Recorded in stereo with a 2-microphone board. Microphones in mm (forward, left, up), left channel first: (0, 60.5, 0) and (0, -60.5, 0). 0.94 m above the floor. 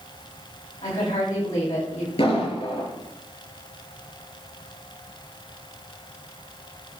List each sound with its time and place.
0.8 s a woman speaking: 70° left (ahead or behind), 6 m
2.2 s an explosion: 50° left (ahead or behind), 6 m